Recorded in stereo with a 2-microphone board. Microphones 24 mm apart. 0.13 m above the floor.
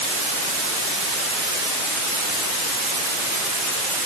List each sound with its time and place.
Only background noise.